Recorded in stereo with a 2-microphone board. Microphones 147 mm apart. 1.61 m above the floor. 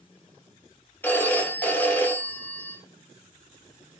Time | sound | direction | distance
1.0 | a phone ringing | 10° left (ahead or behind) | 0.6 m